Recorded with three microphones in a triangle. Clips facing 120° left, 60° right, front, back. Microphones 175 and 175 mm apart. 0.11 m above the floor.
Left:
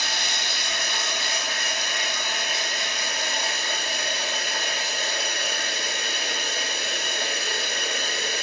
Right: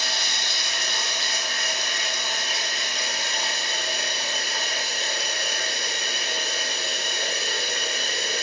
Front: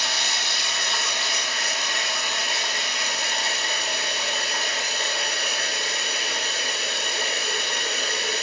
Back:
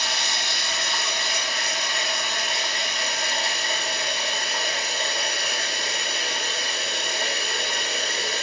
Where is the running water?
90° left, 1.3 m.